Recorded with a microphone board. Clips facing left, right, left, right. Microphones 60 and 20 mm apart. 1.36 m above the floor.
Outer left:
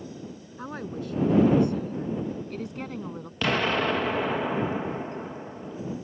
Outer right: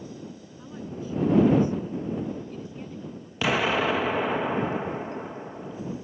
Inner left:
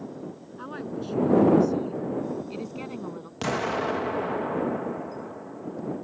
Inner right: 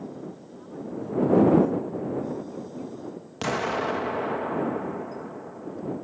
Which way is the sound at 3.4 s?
5° right (ahead or behind).